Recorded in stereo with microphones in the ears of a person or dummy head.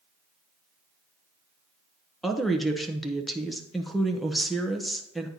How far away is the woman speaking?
About 1.0 m.